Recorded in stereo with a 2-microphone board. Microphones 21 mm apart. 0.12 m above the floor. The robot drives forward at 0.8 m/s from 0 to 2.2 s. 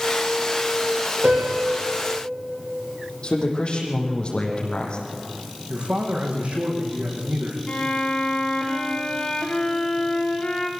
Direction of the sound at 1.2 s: 85° right.